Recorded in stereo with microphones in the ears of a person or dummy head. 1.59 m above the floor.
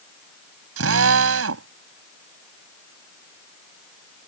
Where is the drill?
80° right.